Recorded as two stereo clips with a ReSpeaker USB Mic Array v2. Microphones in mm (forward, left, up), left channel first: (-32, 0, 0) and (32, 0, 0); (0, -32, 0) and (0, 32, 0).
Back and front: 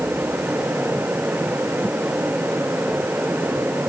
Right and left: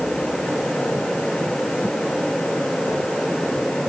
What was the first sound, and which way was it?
Only background noise.